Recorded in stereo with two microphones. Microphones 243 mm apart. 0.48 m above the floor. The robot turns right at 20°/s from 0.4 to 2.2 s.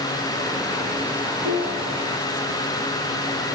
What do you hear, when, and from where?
1.4 s a piano: 70° right (ahead or behind), 2.5 m; by 2.1 s 55° right (ahead or behind), 2.5 m